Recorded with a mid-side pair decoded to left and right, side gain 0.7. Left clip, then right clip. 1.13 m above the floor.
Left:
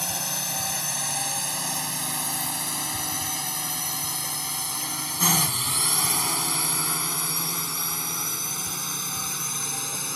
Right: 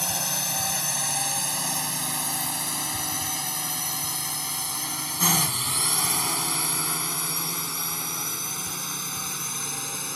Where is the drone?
5° right; by 10.2 s 10° left.